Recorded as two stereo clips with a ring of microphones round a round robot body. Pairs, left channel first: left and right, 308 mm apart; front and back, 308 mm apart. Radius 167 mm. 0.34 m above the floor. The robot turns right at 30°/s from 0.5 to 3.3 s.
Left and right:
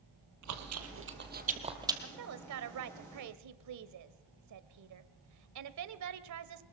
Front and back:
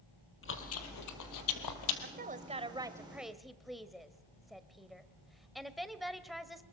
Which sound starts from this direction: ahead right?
Chewing, at 0.4 s.